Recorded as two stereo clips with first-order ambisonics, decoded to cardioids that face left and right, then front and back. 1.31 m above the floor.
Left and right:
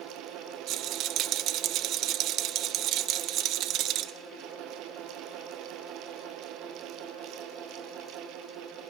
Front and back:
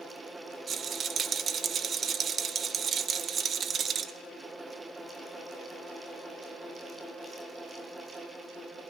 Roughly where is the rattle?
Behind right.